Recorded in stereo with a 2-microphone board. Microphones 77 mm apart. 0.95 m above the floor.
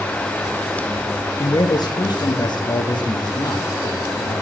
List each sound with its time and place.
1.4 s a man speaking: 55° left (ahead or behind), 1.1 m; by 4.4 s 60° left (ahead or behind), 2.5 m